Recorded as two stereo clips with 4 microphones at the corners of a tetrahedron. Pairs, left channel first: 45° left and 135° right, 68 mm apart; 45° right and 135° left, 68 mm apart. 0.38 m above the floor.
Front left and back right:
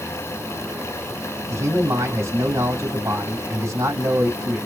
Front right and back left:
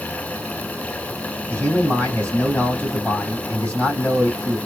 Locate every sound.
1.5 s a man speaking: 110° right, 2.5 m